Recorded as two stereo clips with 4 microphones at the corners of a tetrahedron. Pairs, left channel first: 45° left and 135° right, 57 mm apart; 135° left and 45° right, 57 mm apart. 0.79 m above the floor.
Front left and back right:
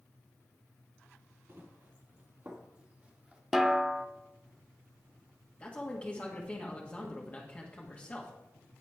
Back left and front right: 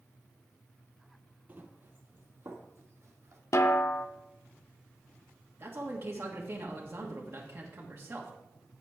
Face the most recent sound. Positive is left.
turn(degrees=-15)